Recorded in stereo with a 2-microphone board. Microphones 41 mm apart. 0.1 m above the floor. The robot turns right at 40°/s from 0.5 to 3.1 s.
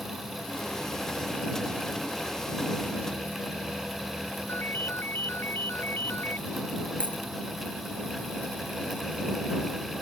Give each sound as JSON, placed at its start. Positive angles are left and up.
{"t": 4.5, "sound": "a ringtone", "side_deg": 65}
{"t": 7.0, "sound": "a dropped coin", "side_deg": 35}